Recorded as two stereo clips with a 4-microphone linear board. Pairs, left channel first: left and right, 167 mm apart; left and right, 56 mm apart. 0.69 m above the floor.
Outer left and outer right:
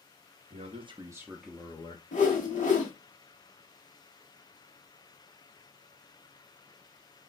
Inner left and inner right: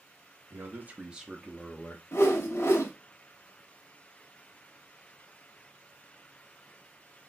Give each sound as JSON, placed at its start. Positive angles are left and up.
{"t": 0.5, "sound": "a man speaking", "side_deg": -40, "distance_m": 0.7}
{"t": 2.1, "sound": "a whoosh", "side_deg": 50, "distance_m": 1.0}